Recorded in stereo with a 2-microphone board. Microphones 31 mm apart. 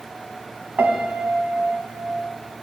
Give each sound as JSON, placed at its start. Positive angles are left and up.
{"t": 0.8, "sound": "a piano", "side_deg": -65, "distance_m": 0.9}